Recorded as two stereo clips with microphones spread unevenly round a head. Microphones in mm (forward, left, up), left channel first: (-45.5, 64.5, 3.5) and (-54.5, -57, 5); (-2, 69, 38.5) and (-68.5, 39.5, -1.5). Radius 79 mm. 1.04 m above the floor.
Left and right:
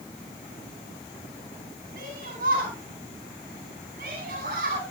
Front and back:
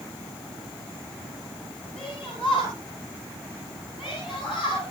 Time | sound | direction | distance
2.0 | a shout | 65° right | 9 m